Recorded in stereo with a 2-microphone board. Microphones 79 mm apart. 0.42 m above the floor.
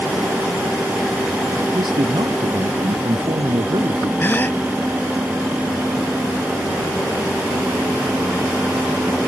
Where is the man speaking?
85° right.